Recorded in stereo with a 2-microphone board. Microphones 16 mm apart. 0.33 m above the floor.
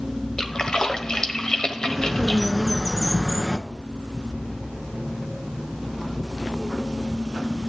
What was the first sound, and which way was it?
A splash, 45° left (ahead or behind).